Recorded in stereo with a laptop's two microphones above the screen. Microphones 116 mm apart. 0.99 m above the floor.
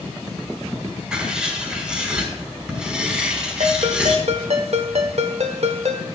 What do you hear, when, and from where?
1.1 s writing: 10° right (ahead or behind), 5.5 m
3.6 s a ringtone: 70° right (ahead or behind), 1.3 m